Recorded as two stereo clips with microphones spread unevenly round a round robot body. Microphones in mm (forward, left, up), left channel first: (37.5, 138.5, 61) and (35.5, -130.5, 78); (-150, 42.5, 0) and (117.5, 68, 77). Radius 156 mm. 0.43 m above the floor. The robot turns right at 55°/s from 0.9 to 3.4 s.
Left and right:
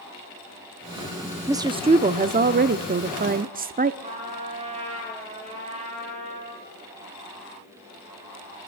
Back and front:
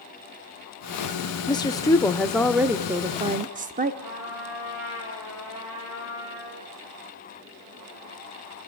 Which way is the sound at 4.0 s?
20° right.